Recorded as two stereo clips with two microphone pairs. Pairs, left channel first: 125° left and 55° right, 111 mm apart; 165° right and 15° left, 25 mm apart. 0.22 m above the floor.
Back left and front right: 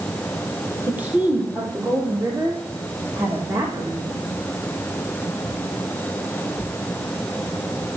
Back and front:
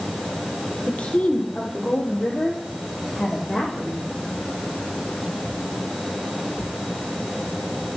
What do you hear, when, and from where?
0.9 s a woman speaking: 130° right, 5.5 m; by 4.2 s 120° right, 10 m